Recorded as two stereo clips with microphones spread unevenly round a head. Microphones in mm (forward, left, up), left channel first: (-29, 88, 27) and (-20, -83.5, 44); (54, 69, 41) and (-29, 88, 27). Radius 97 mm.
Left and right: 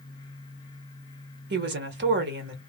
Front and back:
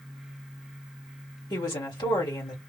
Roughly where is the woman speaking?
Ahead right.